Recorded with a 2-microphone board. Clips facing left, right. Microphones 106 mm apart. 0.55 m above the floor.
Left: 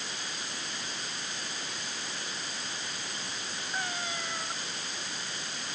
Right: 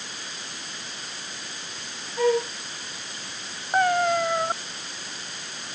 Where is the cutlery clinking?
No cutlery clinking in this recording.